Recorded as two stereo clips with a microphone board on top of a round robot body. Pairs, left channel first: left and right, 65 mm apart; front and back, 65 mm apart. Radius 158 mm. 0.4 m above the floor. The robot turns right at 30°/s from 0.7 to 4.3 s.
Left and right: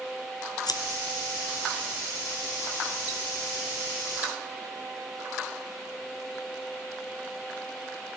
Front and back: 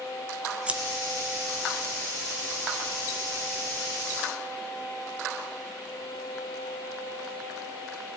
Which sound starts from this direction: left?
Scissors, at 0.7 s.